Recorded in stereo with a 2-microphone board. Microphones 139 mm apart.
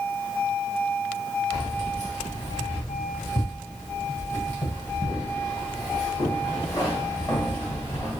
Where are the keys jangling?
20° left (ahead or behind), 1.5 m.